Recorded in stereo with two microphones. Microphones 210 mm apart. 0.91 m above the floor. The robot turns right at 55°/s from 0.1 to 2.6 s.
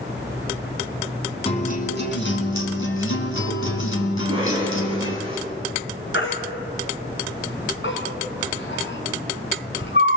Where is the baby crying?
65° left (ahead or behind), 3.5 m.